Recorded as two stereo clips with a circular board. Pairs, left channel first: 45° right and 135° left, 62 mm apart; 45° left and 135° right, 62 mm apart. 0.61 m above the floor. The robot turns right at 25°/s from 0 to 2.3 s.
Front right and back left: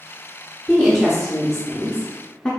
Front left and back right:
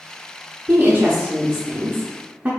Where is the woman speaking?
145° right, 0.6 m; by 2.5 s 105° right, 0.6 m.